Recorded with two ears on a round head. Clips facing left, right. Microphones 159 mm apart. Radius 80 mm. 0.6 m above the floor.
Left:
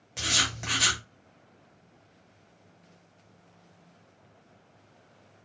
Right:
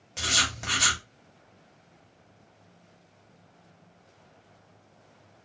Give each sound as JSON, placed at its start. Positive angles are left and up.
{"t": 0.2, "sound": "writing", "side_deg": 0, "distance_m": 0.7}